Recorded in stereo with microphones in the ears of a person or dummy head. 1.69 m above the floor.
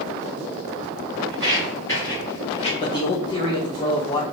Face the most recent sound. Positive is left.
turn(degrees=30)  # may be behind; listen again after turning